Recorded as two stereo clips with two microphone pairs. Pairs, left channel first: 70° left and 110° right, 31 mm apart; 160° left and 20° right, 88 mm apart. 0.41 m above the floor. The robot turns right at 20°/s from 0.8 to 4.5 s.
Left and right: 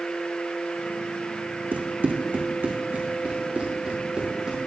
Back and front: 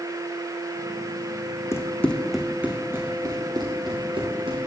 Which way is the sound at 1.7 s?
145° right.